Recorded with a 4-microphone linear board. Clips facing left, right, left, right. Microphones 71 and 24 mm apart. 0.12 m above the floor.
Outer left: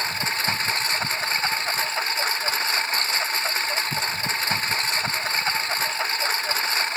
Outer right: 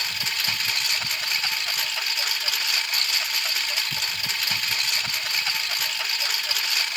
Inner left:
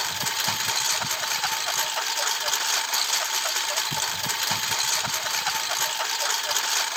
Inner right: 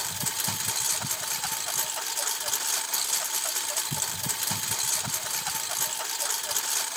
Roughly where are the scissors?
I don't hear scissors.